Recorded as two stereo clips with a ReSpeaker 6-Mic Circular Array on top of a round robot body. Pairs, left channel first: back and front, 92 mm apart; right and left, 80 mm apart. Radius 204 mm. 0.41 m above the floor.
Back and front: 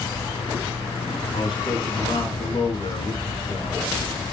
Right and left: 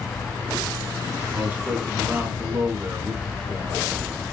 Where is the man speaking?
155° left, 4.5 m.